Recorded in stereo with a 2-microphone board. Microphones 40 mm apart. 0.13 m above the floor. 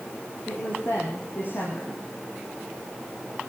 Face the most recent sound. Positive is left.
turn(degrees=50)  # may be behind; listen again after turning